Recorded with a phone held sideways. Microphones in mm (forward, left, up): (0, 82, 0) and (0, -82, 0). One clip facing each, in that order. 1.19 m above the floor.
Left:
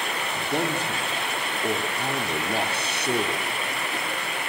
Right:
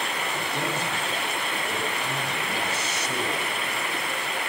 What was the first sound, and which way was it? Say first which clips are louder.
A man speaking: left 5 dB; 60° left (ahead or behind).